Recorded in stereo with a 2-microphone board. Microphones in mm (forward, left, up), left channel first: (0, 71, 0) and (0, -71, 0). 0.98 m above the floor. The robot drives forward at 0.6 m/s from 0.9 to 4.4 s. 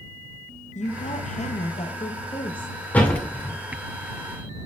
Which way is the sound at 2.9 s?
10° left (ahead or behind).